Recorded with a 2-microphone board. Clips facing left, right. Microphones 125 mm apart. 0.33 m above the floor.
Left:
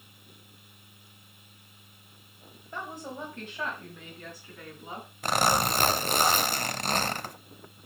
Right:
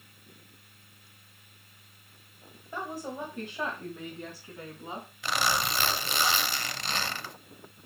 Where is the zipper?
45° left (ahead or behind), 0.5 m.